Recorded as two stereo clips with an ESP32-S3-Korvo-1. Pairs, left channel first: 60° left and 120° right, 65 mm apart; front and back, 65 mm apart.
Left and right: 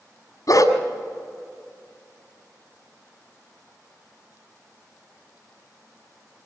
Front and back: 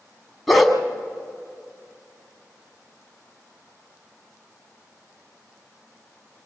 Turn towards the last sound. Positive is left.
turn(degrees=85)